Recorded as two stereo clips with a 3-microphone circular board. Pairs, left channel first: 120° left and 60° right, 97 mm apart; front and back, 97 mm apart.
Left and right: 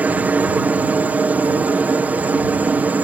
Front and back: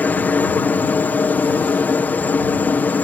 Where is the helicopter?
25° right.